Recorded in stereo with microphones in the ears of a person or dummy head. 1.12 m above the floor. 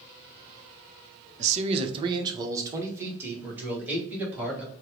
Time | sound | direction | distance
1.4 | a man speaking | 40° right (ahead or behind) | 0.7 m